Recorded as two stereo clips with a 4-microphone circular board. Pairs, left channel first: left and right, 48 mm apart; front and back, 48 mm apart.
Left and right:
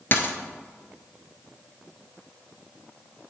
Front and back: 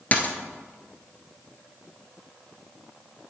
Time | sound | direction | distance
0.1 | a dropped coin | 55° left | 1.0 m